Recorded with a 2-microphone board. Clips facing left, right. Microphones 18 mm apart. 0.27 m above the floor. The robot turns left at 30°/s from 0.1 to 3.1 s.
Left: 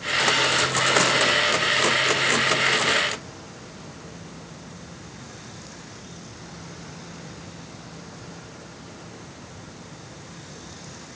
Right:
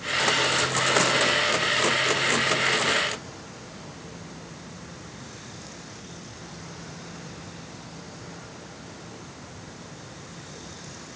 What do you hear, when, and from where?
Only background noise.